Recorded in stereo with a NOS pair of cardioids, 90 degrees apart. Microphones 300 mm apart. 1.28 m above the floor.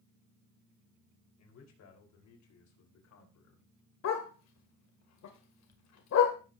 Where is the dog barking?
65° left, 2 m.